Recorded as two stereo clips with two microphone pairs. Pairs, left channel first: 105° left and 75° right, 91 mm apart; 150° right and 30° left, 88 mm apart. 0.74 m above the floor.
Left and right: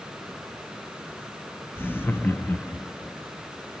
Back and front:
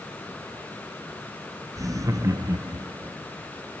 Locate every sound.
1.8 s laughter: 50° left, 0.9 m